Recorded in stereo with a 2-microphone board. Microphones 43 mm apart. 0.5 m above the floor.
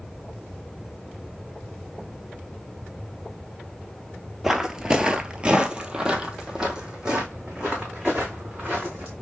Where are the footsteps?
10° right (ahead or behind), 0.5 m; by 9.1 s 15° right (ahead or behind), 2.5 m.